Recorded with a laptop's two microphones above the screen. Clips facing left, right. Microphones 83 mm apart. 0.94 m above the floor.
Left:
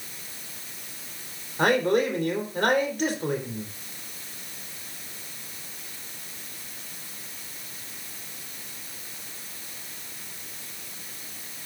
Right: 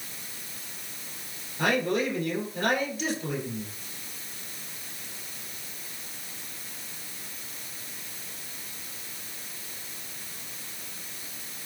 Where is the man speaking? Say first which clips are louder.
Left 4 dB; 50° left (ahead or behind), 3.5 m.